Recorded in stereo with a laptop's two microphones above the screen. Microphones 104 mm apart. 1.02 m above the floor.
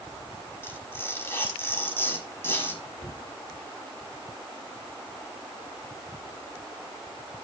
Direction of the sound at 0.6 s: 25° left (ahead or behind).